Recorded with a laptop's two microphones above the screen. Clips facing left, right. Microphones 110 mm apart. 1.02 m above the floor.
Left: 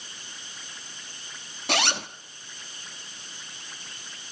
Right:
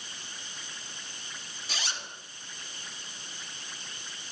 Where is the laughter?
I don't hear laughter.